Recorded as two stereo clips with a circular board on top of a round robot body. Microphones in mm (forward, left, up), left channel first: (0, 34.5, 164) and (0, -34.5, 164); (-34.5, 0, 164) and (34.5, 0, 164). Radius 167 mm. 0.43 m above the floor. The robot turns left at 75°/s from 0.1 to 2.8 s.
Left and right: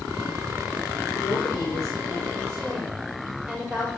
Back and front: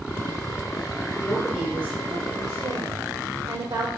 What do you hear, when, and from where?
1.2 s a woman speaking: 115° left, 3.5 m; by 3.9 s 10° right, 3.5 m